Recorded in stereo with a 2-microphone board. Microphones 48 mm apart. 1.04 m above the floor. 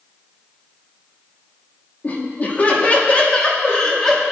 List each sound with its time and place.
2.0 s laughter: 40° left (ahead or behind), 2.5 m; by 4.2 s 15° left (ahead or behind), 2.5 m